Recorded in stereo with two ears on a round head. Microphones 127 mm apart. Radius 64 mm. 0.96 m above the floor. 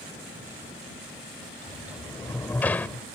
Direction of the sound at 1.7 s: 10° left (ahead or behind).